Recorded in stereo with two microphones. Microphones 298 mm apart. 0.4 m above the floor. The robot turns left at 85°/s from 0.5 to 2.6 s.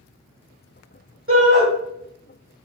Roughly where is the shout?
Right.